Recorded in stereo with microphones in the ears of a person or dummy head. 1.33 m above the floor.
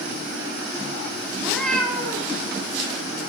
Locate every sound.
1.4 s a cat meowing: 5° left (ahead or behind), 1.8 m